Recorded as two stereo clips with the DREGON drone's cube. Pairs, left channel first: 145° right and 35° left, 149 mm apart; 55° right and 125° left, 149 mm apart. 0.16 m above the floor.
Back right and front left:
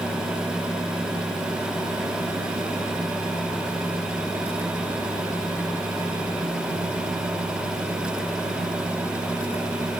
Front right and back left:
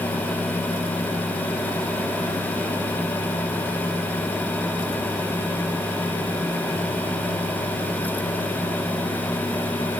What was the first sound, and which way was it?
Only background noise.